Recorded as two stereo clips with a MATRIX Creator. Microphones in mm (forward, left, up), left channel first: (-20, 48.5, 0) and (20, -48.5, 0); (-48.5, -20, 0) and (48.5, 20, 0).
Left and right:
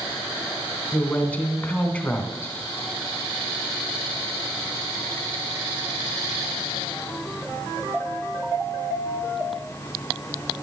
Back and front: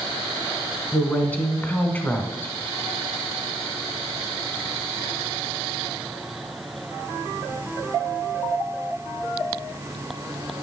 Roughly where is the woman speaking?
Behind.